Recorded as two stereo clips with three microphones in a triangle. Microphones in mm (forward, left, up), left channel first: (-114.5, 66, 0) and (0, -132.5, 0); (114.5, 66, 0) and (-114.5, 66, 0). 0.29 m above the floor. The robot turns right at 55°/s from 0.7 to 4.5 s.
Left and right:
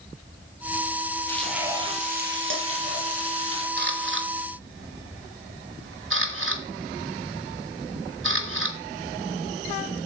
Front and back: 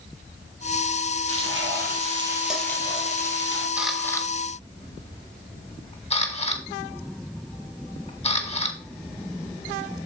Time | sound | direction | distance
1.3 | frying | 160° right | 3.5 m
3.8 | a camera shutter | 100° right | 1.7 m